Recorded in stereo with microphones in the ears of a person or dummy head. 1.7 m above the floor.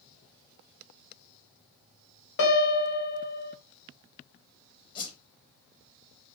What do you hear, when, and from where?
2.4 s a piano: 60° left (ahead or behind), 0.7 m
5.0 s a whoosh: 35° left (ahead or behind), 0.6 m